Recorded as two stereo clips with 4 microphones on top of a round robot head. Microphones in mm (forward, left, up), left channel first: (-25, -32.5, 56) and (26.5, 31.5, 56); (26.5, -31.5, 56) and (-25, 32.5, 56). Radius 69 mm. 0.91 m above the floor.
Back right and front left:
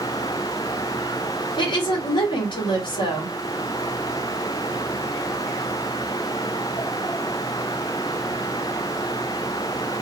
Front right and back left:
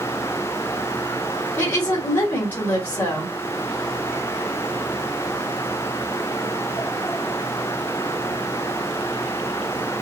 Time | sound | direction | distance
1.6 | a woman speaking | 120° right | 1.9 m